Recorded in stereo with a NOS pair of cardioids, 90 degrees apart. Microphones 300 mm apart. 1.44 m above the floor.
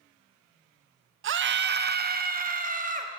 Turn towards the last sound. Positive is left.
turn(degrees=-25)